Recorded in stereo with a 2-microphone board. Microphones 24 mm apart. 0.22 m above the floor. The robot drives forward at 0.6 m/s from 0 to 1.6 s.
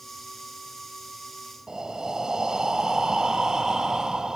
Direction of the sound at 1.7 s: 30° right (ahead or behind).